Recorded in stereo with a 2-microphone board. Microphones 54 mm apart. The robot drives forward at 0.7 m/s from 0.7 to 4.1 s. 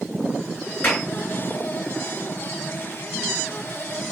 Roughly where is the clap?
Left.